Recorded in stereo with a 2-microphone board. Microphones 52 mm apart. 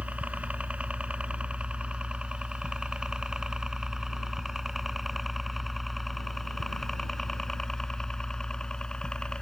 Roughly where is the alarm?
I don't hear an alarm.